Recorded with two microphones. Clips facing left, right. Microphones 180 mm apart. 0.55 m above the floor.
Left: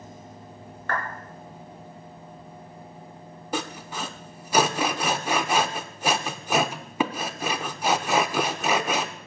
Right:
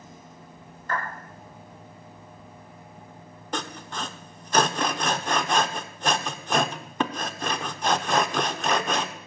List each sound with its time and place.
0.9 s a clap: 70° left (ahead or behind), 5.5 m
3.5 s sawing: 10° left (ahead or behind), 0.7 m